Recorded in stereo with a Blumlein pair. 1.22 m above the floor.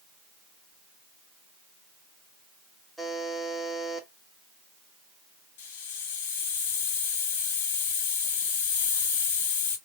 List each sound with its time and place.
3.0 s a buzzer: straight ahead, 1.4 m
5.6 s a hiss: 55° left, 1.9 m